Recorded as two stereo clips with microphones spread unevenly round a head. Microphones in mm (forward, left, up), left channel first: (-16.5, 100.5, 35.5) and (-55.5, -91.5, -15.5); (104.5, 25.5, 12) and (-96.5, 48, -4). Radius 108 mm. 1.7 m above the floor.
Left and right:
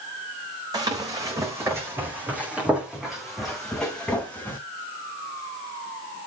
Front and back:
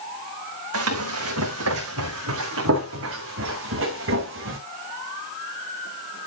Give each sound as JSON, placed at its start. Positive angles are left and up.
{"t": 0.7, "sound": "running footsteps", "azimuth_deg": -175, "distance_m": 4.5}